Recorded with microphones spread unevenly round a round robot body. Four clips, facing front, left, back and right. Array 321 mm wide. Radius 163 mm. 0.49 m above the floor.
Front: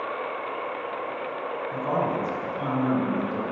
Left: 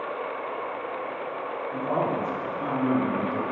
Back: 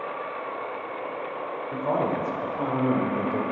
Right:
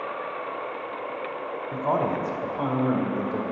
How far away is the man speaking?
About 2.0 m.